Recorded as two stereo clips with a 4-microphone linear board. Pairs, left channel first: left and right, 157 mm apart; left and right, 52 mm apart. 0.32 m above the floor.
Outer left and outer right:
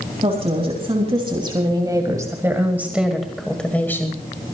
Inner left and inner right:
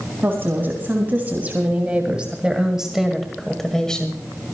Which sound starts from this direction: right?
A woman speaking, at 0.2 s.